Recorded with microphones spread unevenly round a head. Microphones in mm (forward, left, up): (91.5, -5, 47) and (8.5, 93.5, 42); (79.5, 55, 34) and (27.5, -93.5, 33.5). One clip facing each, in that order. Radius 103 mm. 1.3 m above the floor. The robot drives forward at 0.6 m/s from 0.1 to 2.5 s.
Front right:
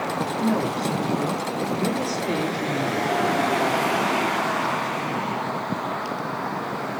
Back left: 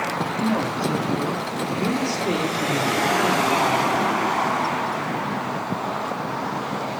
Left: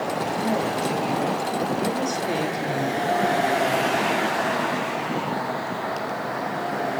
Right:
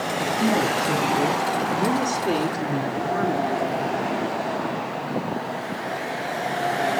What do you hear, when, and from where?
0.4 s a woman speaking: 150° right, 2 m; by 3.5 s 160° right, 3.5 m